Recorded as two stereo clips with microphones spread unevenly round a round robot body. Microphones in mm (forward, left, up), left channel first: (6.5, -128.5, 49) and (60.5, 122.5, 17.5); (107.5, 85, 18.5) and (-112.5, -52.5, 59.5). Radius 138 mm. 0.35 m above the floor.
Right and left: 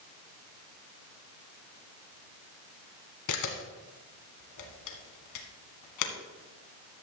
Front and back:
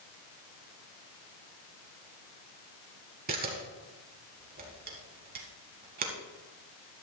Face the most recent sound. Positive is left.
turn(degrees=-90)